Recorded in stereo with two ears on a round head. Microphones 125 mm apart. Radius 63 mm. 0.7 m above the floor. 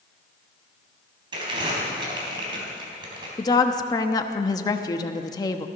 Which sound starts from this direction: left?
A woman speaking, at 3.4 s.